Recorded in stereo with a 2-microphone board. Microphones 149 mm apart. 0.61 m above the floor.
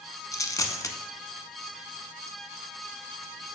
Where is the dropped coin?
25° left (ahead or behind), 0.6 m.